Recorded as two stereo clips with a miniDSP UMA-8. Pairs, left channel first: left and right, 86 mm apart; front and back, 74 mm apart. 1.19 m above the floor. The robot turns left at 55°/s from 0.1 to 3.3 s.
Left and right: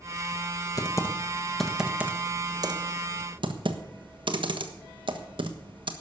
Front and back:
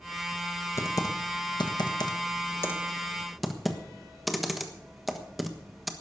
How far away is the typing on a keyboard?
About 1.3 m.